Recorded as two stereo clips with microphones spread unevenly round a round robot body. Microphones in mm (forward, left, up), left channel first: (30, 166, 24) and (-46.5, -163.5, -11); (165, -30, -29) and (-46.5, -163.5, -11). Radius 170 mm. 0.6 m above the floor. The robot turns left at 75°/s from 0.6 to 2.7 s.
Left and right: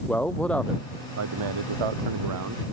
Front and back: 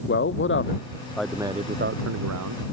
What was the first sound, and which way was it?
A man speaking, 10° right.